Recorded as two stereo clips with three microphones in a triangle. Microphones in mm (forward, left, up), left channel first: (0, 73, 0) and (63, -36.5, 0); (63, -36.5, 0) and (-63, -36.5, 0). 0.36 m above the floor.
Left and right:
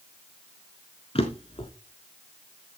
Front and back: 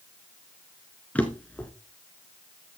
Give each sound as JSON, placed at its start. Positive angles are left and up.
{"t": 1.1, "sound": "a drawer", "azimuth_deg": 80, "distance_m": 1.6}